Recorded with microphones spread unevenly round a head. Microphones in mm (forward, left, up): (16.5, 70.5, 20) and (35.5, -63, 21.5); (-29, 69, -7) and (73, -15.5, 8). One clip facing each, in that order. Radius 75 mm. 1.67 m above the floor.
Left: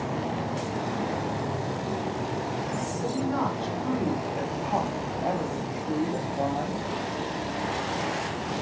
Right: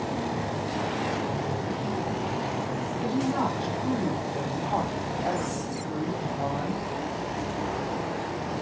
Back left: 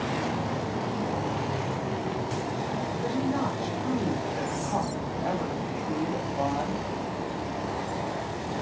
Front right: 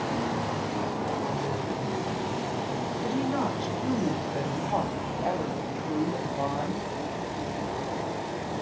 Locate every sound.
3.0 s a woman speaking: 10° right, 4 m; by 6.8 s 70° left, 3 m